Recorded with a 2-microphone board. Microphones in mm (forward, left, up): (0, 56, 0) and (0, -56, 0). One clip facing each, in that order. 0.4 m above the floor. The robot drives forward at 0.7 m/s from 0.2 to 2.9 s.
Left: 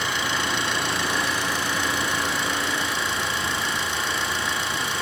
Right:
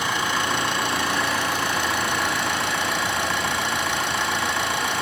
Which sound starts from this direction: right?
An engine running, at 0.0 s.